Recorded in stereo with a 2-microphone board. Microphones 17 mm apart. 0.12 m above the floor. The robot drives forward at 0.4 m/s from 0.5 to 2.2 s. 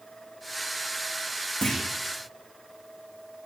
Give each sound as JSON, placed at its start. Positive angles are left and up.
{"t": 1.6, "sound": "a clunk", "side_deg": 55, "distance_m": 8.0}